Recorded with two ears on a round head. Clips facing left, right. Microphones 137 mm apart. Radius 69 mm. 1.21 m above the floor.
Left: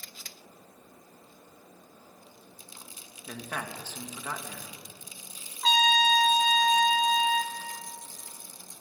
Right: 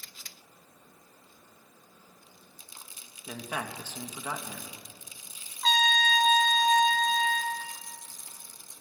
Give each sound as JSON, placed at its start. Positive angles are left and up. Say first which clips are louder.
{"t": 3.3, "sound": "a man speaking", "louder": "right 1 dB", "side_deg": -10, "distance_m": 2.0}
{"t": 5.6, "sound": "a trumpet", "louder": "left 3 dB", "side_deg": 5, "distance_m": 1.8}